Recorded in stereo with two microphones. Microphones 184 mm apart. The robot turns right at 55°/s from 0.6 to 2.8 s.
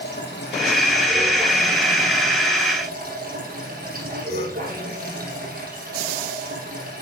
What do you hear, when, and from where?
0.0 s running water: 115° left, 6 m; by 7.0 s 125° right, 6 m